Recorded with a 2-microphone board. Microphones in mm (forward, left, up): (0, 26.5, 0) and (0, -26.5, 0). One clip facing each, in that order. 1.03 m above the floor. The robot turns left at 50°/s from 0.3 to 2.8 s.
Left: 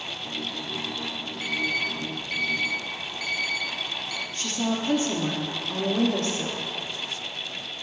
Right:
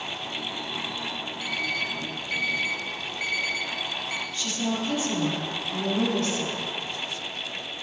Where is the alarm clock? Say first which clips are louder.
Left 3 dB; 40° left (ahead or behind), 1.5 m; by 4.2 s 30° right (ahead or behind), 1.5 m.